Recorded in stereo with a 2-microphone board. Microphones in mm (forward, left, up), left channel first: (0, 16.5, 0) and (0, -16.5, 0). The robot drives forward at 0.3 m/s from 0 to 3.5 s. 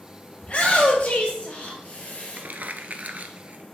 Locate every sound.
0.4 s a shout: 30° left (ahead or behind), 2.5 m; by 2.4 s 40° left (ahead or behind), 2 m
2.4 s crumpling: 60° right (ahead or behind), 0.7 m; by 3.7 s 50° right (ahead or behind), 0.9 m